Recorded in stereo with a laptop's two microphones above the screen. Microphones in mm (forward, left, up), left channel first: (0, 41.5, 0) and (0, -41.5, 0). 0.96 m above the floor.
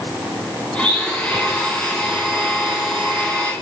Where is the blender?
15° left (ahead or behind), 3.5 m.